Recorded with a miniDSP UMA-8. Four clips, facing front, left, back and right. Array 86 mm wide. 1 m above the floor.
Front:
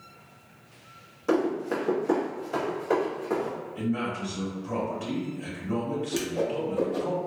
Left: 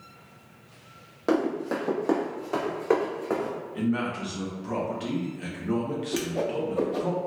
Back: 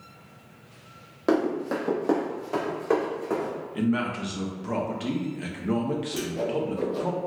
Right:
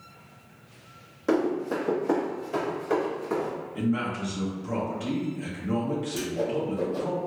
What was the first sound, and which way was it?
Running footsteps, 150° left.